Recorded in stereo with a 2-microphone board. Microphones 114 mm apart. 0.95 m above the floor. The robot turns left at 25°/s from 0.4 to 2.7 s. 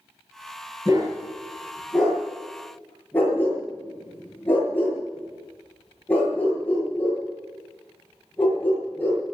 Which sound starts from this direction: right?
A dog barking, at 0.8 s.